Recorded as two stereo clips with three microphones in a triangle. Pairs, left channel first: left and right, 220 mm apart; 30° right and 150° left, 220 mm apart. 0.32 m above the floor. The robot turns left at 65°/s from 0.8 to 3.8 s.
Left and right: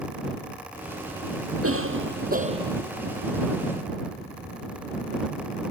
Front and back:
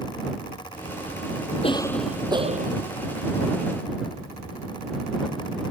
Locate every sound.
1.6 s a cough: 95° right; by 2.8 s 170° right